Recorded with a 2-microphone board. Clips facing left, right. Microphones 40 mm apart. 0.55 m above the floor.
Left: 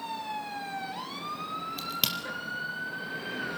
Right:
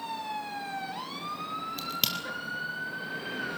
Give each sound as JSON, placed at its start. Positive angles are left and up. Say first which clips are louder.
{"t": 1.8, "sound": "a crack", "louder": "left 1 dB", "side_deg": 5, "distance_m": 4.0}